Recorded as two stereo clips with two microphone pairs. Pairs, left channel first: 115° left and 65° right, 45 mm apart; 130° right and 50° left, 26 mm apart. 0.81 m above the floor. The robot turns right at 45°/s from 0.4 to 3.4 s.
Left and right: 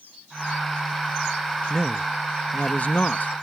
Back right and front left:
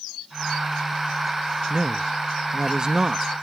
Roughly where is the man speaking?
Ahead left.